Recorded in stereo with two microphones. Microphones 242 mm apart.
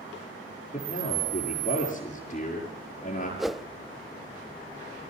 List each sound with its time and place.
0.7 s a man speaking: 30° left (ahead or behind), 6 m
3.4 s a whoosh: centre (ahead or behind), 0.5 m